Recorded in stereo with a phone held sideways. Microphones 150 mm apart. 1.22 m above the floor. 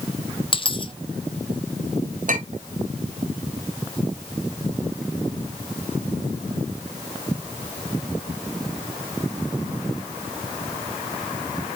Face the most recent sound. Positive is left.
turn(degrees=-60)  # may be behind; listen again after turning